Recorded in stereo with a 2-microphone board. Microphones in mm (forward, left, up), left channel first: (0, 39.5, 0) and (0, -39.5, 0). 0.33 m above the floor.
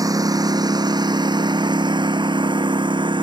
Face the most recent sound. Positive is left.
turn(degrees=-85)